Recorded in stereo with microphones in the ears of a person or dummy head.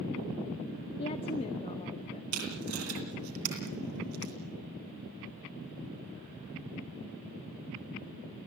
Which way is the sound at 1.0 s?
25° left (ahead or behind).